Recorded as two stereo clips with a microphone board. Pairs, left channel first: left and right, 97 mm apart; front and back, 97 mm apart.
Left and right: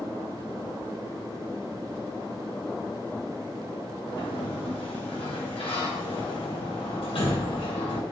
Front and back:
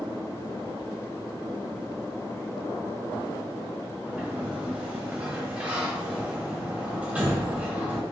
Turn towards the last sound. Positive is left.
turn(degrees=105)